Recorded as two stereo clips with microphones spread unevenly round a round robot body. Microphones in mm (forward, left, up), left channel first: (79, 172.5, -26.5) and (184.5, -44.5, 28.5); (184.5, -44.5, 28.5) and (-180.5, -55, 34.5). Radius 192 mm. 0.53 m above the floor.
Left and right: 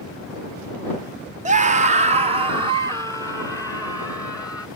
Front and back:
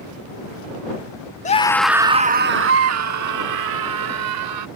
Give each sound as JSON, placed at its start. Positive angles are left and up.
{"t": 1.4, "sound": "a scream", "azimuth_deg": -20}